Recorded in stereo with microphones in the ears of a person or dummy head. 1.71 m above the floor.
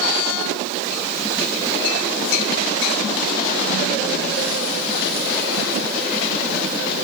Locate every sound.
Only background noise.